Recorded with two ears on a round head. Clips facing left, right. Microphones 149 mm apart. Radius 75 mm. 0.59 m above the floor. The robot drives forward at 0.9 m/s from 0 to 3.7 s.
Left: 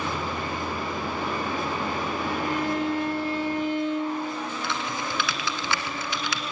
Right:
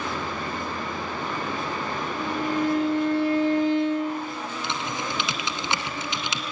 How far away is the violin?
About 7.5 m.